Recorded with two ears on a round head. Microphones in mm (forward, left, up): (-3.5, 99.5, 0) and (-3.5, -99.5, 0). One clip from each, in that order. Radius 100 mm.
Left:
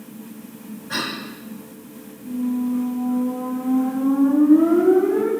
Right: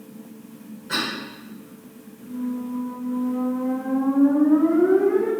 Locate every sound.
0.9 s a cough: 40° right (ahead or behind), 1.7 m
2.2 s a squeak: 50° right (ahead or behind), 1.9 m